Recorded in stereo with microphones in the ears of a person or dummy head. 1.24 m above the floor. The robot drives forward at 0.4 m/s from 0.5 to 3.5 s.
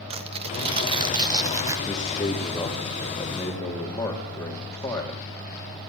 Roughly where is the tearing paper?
Right.